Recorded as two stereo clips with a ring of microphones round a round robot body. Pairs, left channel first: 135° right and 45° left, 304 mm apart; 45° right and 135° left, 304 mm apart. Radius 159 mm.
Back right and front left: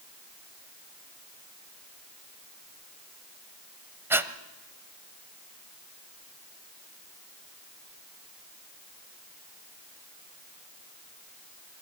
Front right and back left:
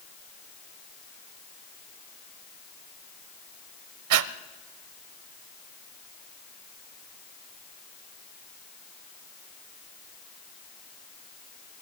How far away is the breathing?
About 0.8 m.